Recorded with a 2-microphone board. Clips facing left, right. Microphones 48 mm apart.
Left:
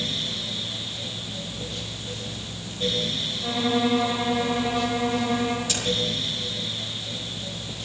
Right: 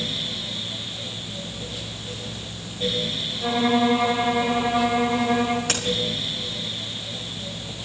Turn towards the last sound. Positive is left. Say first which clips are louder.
# right 3 dB
turn(degrees=-55)  # may be behind; listen again after turning